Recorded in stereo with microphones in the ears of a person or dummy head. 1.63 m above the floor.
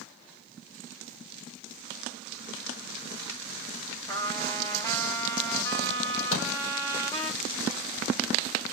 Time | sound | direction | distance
4.1 | a trumpet | 20° left (ahead or behind) | 1.7 m
6.3 | a door slam | 75° left (ahead or behind) | 4 m